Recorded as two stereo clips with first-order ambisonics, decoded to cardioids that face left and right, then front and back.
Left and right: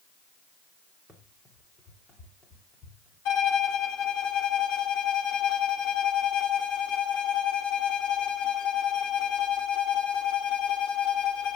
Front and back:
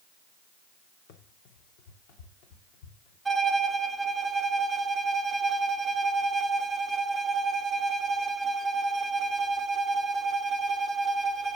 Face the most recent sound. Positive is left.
turn(degrees=100)